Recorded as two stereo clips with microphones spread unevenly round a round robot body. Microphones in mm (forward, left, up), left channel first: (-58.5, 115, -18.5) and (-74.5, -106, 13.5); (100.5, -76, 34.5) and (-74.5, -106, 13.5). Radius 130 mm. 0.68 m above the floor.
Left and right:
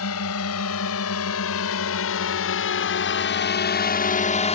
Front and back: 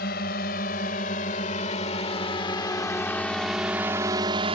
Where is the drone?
60° left; by 4.6 s 135° left.